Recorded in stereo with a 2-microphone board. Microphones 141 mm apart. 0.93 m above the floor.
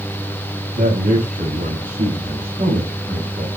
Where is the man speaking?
85° right, 6.5 m; by 3.5 s 80° right, 7 m.